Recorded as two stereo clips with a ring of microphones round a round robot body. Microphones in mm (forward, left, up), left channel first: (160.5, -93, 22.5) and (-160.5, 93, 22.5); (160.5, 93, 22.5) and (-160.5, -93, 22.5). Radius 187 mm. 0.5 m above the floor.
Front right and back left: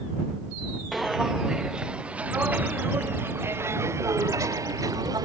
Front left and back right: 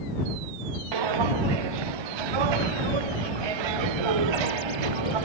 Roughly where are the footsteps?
Behind right.